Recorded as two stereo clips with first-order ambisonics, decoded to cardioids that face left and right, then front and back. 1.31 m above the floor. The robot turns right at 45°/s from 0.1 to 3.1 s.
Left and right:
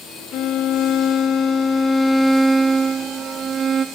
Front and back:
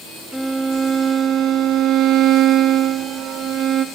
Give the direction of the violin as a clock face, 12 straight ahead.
9 o'clock.